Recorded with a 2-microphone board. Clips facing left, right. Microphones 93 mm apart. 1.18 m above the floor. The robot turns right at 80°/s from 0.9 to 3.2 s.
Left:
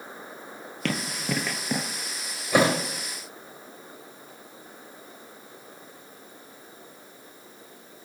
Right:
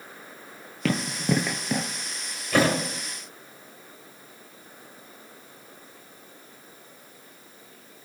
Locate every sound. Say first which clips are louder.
0.8 s running footsteps: right 4 dB; 5° right (ahead or behind), 1.5 m; by 1.9 s 15° left (ahead or behind), 1.2 m
2.5 s a thud: left 1 dB; 15° left (ahead or behind), 2 m; by 2.8 s 35° left (ahead or behind), 2 m